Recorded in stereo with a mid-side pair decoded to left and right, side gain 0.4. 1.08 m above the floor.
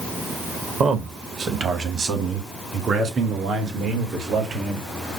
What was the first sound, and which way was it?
A man speaking, 60° right.